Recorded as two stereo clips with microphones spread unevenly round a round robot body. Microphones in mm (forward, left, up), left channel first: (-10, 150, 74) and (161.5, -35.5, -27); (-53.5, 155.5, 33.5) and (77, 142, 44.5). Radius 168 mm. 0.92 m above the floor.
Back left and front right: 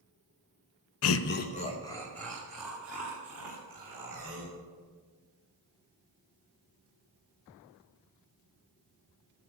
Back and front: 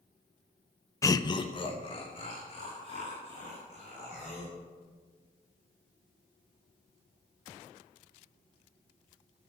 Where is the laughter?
140° left, 0.5 m; by 4.5 s 125° right, 3.5 m.